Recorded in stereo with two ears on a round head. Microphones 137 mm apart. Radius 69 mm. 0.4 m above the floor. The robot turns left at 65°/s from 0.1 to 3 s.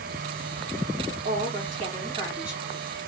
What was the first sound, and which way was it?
A woman speaking, 75° right.